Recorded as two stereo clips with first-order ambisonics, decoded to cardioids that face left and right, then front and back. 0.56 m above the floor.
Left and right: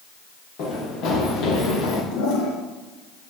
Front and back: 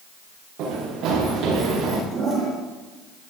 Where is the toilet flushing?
115° left, 3.5 m.